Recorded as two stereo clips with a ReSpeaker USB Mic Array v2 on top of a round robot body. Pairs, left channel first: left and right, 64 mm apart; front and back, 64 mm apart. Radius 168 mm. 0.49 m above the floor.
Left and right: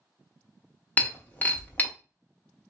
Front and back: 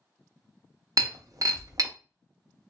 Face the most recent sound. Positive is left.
turn(degrees=155)